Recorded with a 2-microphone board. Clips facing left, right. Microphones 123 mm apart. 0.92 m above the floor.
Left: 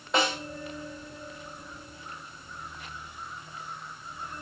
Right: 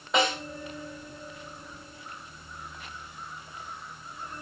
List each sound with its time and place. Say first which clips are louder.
0.1 s a snare drum: right 1 dB; centre (ahead or behind), 6 m